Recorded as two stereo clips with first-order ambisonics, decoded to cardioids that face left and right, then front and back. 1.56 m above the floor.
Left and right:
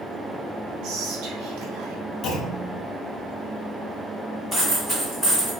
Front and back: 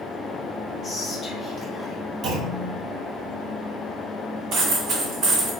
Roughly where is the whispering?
Ahead right.